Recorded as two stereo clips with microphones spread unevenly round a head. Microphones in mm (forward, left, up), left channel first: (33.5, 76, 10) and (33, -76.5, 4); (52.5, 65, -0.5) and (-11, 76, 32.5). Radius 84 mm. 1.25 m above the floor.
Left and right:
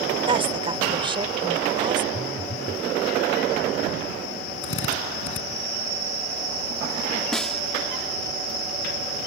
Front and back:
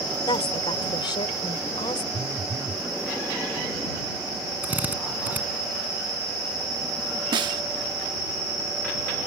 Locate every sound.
0.3 s a woman speaking: 35° right; by 2.0 s 30° right
2.1 s a phone buzzing: 125° left
4.6 s a drill: 110° left
7.3 s a snare drum: 175° left